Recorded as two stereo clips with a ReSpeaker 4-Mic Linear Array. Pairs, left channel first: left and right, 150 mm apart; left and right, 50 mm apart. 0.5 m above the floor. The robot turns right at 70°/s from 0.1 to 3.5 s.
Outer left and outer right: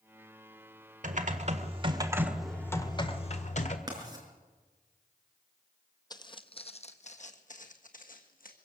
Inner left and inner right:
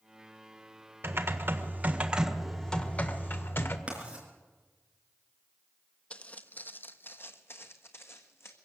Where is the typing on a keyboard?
95° right, 1.5 m; by 3.8 s 75° left, 1.5 m.